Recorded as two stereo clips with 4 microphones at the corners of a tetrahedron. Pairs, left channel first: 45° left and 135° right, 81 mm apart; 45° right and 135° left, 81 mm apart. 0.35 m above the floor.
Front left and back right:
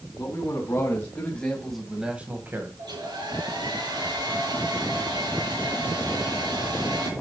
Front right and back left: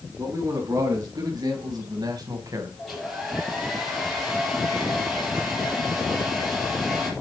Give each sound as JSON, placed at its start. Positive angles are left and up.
{"t": 0.2, "sound": "a man speaking", "azimuth_deg": 95, "distance_m": 3.5}
{"t": 2.8, "sound": "a hair dryer", "azimuth_deg": -135, "distance_m": 4.0}